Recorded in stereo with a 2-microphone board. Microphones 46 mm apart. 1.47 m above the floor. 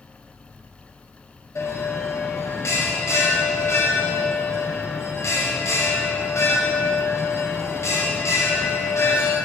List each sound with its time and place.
1.6 s a bell: 80° left, 0.9 m